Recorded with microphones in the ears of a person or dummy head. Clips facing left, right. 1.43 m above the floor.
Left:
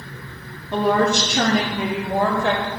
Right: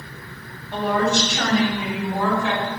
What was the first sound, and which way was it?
A woman speaking, 70° left (ahead or behind).